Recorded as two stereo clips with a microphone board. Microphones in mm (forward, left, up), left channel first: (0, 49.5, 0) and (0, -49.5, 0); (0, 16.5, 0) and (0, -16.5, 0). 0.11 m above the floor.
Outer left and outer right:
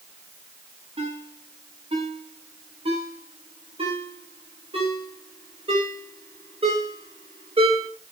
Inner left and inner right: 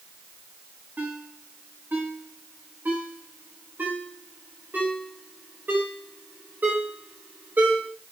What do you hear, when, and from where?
1.0 s a ringtone: 75° right (ahead or behind), 8.5 m